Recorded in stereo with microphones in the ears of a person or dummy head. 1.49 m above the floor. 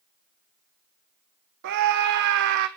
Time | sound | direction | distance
1.6 | a scream | 60° right (ahead or behind) | 0.9 m